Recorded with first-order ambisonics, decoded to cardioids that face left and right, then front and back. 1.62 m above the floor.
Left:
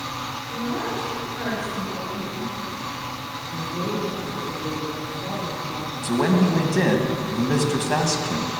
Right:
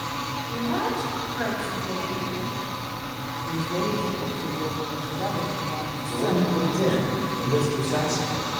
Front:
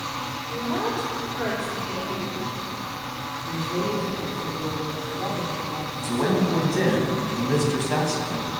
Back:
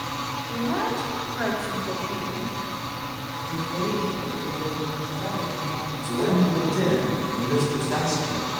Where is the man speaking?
85° left, 2.5 m.